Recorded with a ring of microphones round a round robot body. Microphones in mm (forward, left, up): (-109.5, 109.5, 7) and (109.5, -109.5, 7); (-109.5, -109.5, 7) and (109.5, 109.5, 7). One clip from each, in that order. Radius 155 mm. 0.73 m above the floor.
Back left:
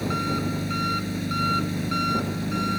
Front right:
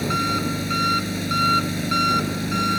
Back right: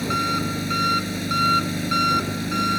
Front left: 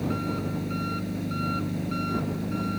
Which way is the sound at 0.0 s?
110° right.